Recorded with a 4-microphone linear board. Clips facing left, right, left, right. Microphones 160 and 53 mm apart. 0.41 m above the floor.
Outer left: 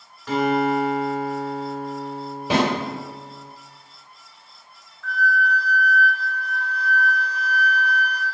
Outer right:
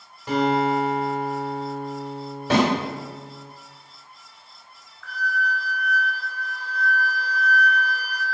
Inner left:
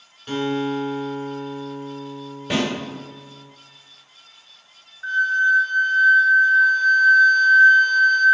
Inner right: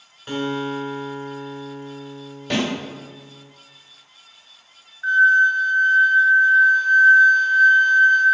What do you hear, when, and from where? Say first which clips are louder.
0.3 s a guitar: outer left 1 dB, inner left 2 dB; 15° right (ahead or behind), 1.4 m
2.5 s a snare drum: outer right 1 dB, even; 15° left (ahead or behind), 2.0 m
5.0 s a flute: outer left 5 dB, inner right 4 dB; 20° left (ahead or behind), 1.7 m